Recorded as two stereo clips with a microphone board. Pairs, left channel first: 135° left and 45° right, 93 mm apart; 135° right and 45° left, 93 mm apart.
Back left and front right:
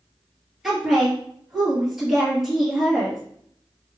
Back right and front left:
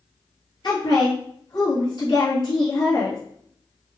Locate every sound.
0.6 s a woman speaking: 130° right, 2.0 m